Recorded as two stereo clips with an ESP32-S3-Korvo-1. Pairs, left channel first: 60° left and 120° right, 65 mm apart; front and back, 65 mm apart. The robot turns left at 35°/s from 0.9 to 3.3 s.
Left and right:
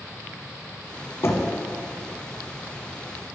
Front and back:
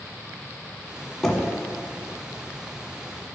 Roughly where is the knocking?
Left.